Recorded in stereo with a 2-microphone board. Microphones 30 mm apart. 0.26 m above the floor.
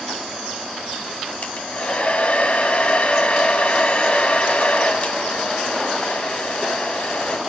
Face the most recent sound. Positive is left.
turn(degrees=45)  # may be behind; listen again after turning